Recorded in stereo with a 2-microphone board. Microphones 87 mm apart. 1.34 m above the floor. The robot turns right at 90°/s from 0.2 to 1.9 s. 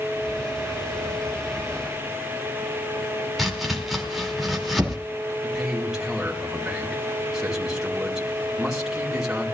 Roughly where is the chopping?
Centre.